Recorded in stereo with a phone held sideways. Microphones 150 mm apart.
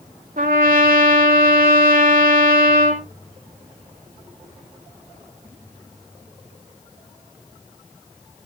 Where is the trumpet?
70° right (ahead or behind), 2 m.